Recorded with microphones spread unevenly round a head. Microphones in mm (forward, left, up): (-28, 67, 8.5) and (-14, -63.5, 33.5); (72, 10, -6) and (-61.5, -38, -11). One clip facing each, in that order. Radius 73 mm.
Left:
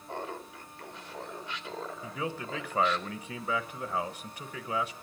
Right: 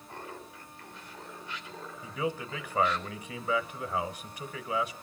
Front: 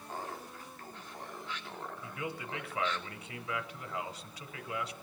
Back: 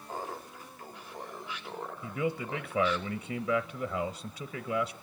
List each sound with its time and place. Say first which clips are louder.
0.1 s laughter: left 6 dB, back 3 dB; 120° left, 2 m
2.0 s a man speaking: right 5 dB, back 10 dB; 170° left, 0.8 m